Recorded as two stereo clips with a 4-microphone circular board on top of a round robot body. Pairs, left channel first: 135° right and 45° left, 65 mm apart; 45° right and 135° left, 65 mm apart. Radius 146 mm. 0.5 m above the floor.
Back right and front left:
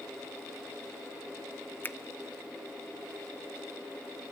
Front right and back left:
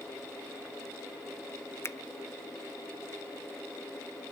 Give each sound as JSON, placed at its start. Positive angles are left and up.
{"t": 1.8, "sound": "a finger snap", "azimuth_deg": -80, "distance_m": 1.0}